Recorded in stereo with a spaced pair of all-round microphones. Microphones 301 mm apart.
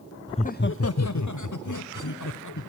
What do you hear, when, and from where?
0.3 s laughter: 15° left (ahead or behind), 0.5 m; by 2.7 s 75° left (ahead or behind), 1.4 m